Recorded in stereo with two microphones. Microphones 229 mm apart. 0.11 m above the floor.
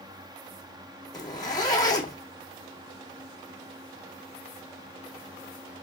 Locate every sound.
1.1 s a zipper: 20° left (ahead or behind), 1.6 m